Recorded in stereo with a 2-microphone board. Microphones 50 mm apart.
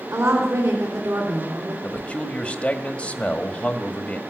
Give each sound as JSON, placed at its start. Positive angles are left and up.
{"t": 0.1, "sound": "a woman speaking", "side_deg": -70, "distance_m": 3.0}
{"t": 1.8, "sound": "a man speaking", "side_deg": 25, "distance_m": 1.6}